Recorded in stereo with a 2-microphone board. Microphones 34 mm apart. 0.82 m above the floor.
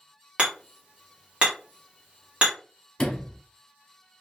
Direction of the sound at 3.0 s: 25° left (ahead or behind).